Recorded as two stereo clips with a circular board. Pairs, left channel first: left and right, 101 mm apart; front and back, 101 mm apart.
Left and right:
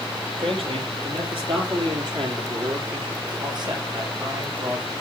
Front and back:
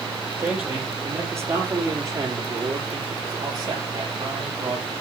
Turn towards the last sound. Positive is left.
turn(degrees=-145)